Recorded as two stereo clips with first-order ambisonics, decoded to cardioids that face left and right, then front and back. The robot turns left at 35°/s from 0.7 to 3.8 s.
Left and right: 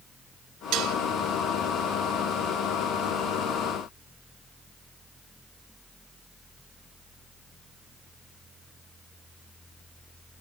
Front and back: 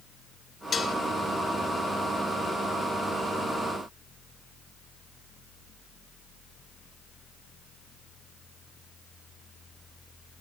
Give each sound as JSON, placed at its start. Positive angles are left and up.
{"t": 0.7, "sound": "dishes clattering", "azimuth_deg": -65, "distance_m": 0.9}